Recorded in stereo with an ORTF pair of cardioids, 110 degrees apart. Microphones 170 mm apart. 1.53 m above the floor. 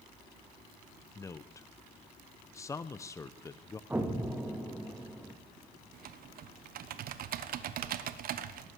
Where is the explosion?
5° right, 2.0 m.